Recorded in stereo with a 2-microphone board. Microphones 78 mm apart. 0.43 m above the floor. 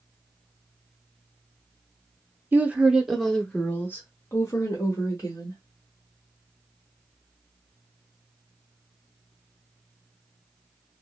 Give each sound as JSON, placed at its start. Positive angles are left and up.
{"t": 2.5, "sound": "a woman speaking", "side_deg": -25, "distance_m": 0.9}